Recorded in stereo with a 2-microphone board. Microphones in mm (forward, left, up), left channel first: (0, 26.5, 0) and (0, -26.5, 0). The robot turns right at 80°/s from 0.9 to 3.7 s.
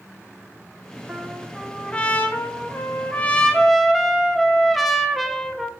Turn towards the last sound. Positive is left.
turn(degrees=175)